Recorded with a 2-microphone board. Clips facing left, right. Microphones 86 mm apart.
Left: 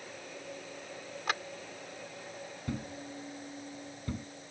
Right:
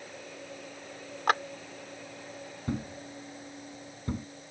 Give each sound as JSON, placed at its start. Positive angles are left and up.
{"t": 1.3, "sound": "a clap", "side_deg": -55}
{"t": 2.7, "sound": "a thud", "side_deg": -25}